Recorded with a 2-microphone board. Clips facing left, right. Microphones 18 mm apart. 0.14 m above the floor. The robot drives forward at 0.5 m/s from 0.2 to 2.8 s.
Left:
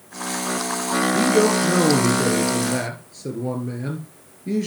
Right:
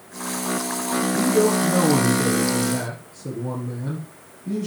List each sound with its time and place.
1.1 s a man speaking: 55° left (ahead or behind), 2.5 m